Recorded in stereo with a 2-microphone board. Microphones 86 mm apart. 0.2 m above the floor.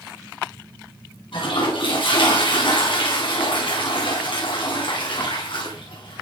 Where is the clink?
I don't hear a clink.